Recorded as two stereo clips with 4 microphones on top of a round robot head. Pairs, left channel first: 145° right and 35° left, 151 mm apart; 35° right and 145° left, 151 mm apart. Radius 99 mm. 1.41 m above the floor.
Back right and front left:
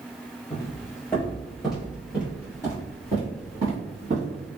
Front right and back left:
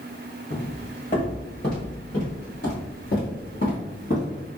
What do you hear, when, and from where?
0.5 s footsteps: 90° right, 1.7 m; by 4.5 s 5° right, 2.5 m